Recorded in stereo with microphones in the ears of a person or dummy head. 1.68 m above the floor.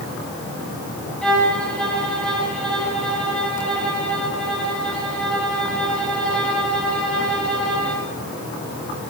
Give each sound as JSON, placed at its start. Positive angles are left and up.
{"t": 1.2, "sound": "a violin", "side_deg": 5, "distance_m": 8.5}